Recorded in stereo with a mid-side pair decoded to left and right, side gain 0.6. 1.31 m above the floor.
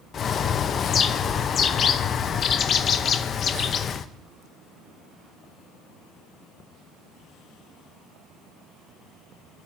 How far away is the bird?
About 0.8 m.